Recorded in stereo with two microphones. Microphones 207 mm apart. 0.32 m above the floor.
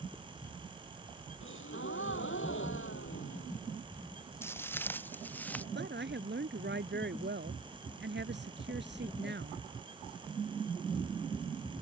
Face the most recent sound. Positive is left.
turn(degrees=-60)  # may be behind; listen again after turning